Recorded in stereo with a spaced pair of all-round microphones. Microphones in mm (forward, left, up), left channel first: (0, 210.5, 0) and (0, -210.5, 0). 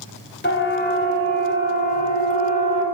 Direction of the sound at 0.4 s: 25° left (ahead or behind).